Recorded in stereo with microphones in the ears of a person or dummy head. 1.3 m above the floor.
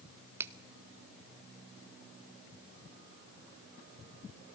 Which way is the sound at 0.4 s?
15° right (ahead or behind).